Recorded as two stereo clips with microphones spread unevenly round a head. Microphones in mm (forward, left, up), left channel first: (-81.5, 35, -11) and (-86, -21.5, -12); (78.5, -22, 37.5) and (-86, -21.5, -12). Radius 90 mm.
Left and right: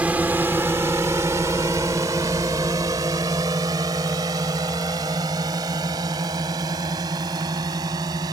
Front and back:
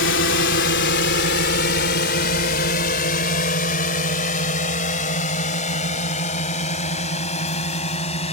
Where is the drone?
15° right; by 8.3 s 55° right.